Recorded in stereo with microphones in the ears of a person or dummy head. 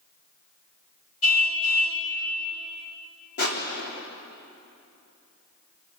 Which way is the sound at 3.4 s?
50° left (ahead or behind).